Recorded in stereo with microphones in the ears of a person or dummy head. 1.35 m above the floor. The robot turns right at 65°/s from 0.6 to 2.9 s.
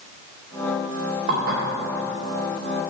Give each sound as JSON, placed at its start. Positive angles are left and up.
{"t": 1.3, "sound": "dishes clattering", "side_deg": -60, "distance_m": 2.5}